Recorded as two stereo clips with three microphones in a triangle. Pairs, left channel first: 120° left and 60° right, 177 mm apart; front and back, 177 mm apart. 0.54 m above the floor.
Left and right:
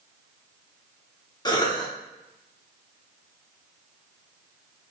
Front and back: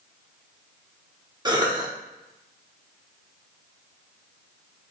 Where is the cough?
150° left, 0.8 m.